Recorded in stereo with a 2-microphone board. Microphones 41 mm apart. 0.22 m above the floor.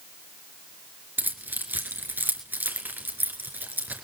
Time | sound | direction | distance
1.2 | keys jangling | 55° right (ahead or behind) | 2.5 m